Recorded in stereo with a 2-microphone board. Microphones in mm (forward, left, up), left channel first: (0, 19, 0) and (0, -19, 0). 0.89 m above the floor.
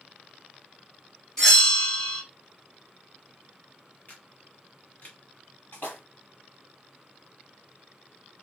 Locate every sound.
1.4 s a bell: 10° left (ahead or behind), 0.8 m
4.1 s a camera shutter: 45° left (ahead or behind), 0.8 m
5.7 s a splash: 65° left (ahead or behind), 1.5 m